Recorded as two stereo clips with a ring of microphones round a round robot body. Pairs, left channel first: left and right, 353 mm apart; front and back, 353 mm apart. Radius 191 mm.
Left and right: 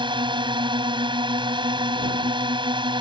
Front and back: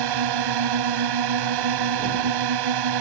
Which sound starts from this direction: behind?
A drone, at 0.0 s.